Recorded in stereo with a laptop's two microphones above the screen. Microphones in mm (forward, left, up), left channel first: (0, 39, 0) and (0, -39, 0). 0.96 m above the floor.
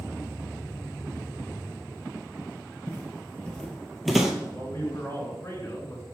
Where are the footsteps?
20° left (ahead or behind), 1.2 m; by 4.3 s 5° right (ahead or behind), 1.5 m.